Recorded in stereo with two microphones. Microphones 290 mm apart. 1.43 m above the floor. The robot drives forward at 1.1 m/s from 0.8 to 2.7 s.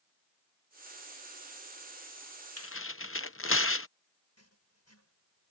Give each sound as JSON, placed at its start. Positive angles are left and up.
{"t": 2.6, "sound": "tearing paper", "side_deg": 55}
{"t": 4.4, "sound": "writing", "side_deg": 60}